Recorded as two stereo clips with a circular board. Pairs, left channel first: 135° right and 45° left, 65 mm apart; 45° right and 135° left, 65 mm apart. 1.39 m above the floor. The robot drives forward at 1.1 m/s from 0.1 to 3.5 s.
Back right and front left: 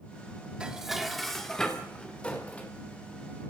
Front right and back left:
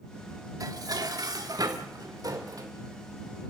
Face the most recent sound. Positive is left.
turn(degrees=160)